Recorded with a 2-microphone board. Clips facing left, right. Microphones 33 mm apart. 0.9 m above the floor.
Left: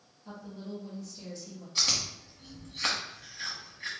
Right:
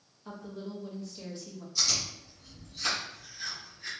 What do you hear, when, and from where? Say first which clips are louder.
0.2 s a woman speaking: right 1 dB; 40° right (ahead or behind), 1.2 m
1.8 s chewing: left 1 dB; 55° left (ahead or behind), 1.3 m